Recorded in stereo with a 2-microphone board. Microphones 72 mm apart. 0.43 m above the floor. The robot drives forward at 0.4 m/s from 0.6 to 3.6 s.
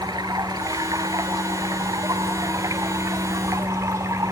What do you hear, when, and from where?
0.0 s running water: 75° right (ahead or behind), 1.9 m; by 4.3 s 50° right (ahead or behind), 2.5 m